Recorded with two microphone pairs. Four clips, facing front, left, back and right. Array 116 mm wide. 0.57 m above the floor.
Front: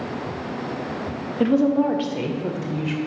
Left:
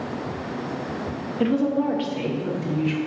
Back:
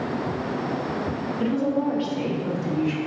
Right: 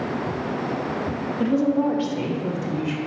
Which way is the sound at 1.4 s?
5° right.